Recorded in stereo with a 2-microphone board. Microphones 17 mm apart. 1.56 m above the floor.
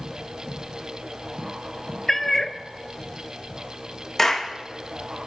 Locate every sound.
2.1 s a cat meowing: 20° left (ahead or behind), 0.8 m
4.2 s a clap: 15° left (ahead or behind), 1.8 m